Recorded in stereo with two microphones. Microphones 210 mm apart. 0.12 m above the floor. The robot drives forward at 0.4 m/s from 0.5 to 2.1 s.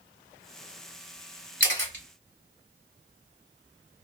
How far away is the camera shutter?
About 1.6 m.